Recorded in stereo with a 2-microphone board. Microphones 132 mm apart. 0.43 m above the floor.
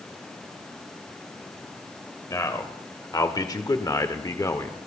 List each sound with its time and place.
2.3 s a man speaking: 25° left (ahead or behind), 1.9 m; by 4.8 s 20° left (ahead or behind), 1.2 m